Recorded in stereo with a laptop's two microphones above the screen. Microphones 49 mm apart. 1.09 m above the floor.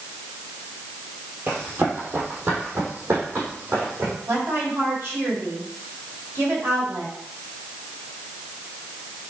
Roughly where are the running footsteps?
Right.